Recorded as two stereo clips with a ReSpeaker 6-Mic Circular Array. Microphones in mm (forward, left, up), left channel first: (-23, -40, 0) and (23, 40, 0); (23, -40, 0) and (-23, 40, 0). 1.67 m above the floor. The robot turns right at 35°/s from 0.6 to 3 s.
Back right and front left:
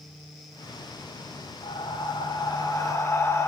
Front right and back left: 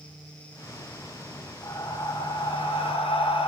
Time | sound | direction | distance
1.6 | breathing | 110° right | 1.2 m